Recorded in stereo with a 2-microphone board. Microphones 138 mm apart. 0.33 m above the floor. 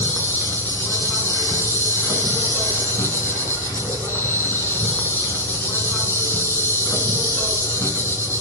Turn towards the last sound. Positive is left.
turn(degrees=15)  # may be behind; listen again after turning